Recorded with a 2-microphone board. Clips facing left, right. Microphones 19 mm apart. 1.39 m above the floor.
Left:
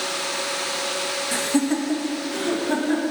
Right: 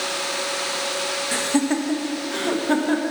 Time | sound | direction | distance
1.3 | laughter | 20° right (ahead or behind) | 1.3 m